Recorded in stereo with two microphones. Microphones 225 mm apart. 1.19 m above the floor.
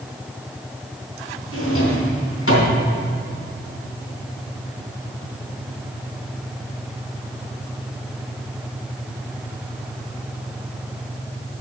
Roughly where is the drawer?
Left.